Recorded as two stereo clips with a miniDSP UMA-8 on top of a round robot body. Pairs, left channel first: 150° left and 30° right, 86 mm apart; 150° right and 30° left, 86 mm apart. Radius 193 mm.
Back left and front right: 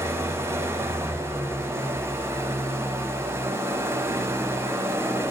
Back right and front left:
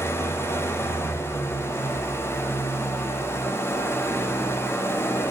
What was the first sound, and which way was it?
An engine running, 90° right.